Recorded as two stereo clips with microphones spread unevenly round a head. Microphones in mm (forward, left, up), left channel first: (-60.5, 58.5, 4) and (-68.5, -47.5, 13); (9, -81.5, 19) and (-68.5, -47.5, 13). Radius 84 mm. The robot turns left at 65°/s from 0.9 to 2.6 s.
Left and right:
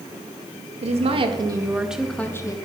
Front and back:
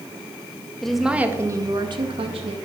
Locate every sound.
0.8 s a woman speaking: 110° right, 1.8 m; by 2.5 s 140° left, 1.8 m